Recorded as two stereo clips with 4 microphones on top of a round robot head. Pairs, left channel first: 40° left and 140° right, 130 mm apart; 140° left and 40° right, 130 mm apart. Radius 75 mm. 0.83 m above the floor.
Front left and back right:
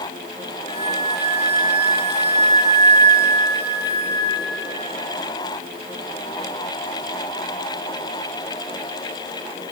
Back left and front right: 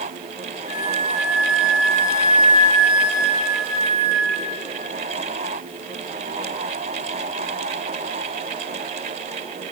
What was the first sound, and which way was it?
A flute, 105° left.